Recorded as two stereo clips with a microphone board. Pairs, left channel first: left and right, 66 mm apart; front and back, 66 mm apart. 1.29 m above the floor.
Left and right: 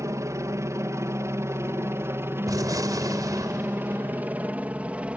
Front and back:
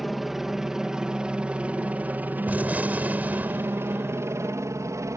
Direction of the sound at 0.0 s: 90° right.